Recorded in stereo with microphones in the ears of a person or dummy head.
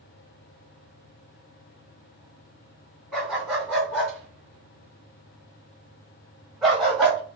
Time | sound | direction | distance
3.1 | a dog barking | centre (ahead or behind) | 1.9 m